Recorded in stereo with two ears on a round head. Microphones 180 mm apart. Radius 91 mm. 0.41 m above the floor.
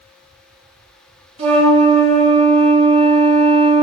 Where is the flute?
30° right (ahead or behind), 2.5 m.